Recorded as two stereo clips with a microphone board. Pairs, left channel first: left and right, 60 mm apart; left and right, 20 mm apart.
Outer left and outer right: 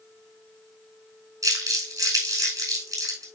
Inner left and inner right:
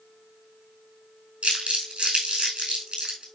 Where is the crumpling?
70° right (ahead or behind), 5 m.